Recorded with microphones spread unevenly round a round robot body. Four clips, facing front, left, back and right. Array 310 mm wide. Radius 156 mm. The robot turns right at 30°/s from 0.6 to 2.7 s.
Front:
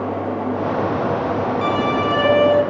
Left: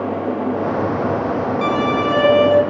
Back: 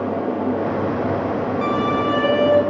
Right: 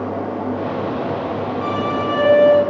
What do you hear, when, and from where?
1.6 s a violin: 75° left, 1.1 m; by 2.6 s 105° left, 1.1 m